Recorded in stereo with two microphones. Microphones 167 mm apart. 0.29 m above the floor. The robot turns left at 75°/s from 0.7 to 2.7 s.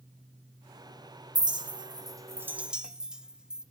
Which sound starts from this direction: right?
A clink, at 1.4 s.